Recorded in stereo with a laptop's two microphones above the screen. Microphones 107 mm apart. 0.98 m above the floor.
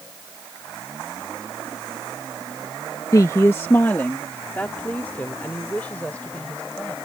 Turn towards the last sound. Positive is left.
turn(degrees=15)  # may be behind; listen again after turning